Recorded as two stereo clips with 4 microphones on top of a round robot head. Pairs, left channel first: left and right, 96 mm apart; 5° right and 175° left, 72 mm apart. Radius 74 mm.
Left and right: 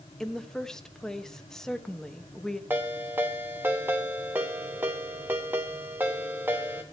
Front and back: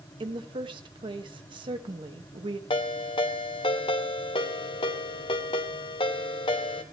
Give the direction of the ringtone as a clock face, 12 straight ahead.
12 o'clock.